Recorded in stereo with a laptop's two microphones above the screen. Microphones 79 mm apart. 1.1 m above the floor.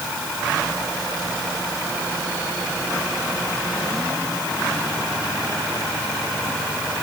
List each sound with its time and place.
Only background noise.